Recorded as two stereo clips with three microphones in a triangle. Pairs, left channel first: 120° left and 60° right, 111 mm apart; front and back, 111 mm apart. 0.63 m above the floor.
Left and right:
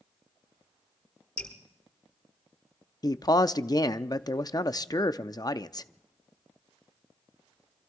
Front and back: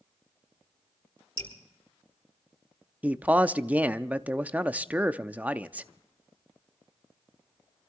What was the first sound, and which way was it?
Dripping, 45° left.